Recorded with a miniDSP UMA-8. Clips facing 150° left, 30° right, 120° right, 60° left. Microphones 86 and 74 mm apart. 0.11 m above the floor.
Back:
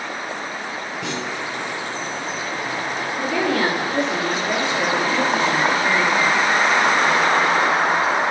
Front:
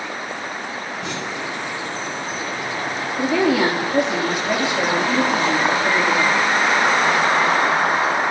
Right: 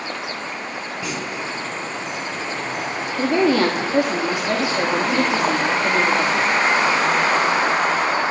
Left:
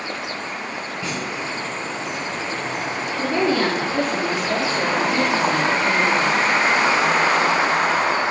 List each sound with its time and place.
1.0 s a clunk: 165° left, 5 m
3.2 s a woman speaking: 115° right, 4.5 m